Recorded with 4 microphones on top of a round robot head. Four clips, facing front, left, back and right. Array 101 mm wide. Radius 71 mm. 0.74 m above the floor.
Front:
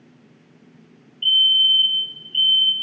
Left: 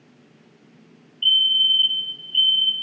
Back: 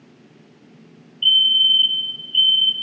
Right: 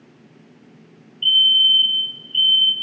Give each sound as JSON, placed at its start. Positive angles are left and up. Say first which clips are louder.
{"t": 1.2, "sound": "a fire alarm", "louder": "right 3 dB, back 1 dB", "azimuth_deg": 5, "distance_m": 1.6}